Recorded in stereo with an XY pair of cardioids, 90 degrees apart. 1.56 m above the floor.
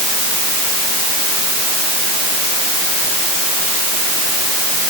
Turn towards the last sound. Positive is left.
No sound to turn to.